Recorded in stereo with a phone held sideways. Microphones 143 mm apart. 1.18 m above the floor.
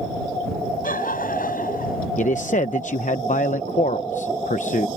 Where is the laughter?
85° left; by 2.1 s 90° left.